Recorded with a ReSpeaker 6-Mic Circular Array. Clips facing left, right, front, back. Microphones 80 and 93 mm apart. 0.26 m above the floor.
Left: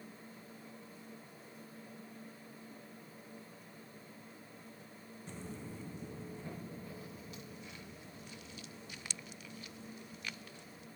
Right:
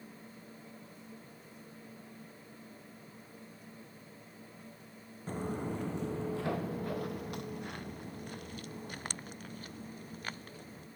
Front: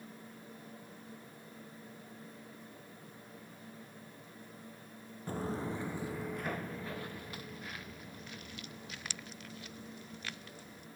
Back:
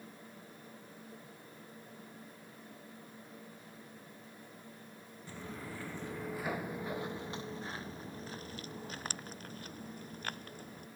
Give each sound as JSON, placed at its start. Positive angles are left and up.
{"t": 5.3, "sound": "footsteps", "azimuth_deg": -45}